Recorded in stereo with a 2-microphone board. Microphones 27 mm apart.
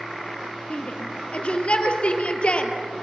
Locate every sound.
0.7 s a shout: 50° left (ahead or behind), 2.5 m